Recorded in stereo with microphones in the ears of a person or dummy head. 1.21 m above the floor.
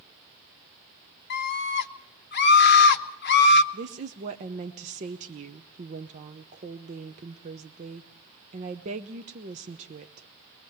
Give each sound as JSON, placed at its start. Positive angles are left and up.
{"t": 1.3, "sound": "a scream", "side_deg": 55, "distance_m": 0.9}
{"t": 3.7, "sound": "a woman speaking", "side_deg": -40, "distance_m": 0.8}